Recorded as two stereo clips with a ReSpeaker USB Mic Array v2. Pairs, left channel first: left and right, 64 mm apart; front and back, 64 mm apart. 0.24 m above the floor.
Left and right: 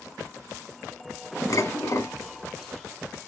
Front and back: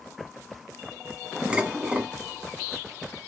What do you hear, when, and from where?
1.5 s dishes clattering: 110° left, 1.4 m